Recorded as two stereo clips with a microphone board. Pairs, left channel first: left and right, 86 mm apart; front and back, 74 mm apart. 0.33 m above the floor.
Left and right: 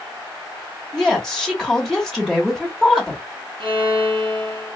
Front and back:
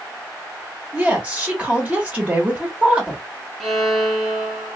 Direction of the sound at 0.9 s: 165° left.